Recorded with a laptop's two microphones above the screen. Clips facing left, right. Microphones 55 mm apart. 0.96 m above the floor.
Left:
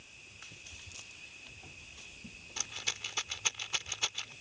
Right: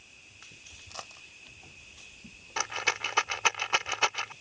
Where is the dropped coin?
80° right.